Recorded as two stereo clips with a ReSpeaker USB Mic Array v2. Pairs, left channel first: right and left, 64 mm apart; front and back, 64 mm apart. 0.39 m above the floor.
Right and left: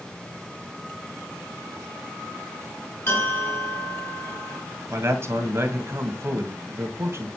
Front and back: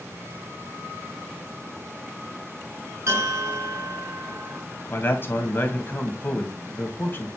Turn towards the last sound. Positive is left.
turn(degrees=50)